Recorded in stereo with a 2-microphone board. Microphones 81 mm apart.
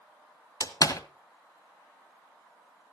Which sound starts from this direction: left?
A door slam, at 0.6 s.